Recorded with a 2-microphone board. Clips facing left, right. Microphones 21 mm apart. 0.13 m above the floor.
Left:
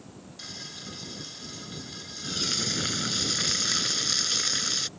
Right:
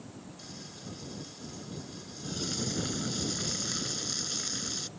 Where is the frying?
45° left (ahead or behind).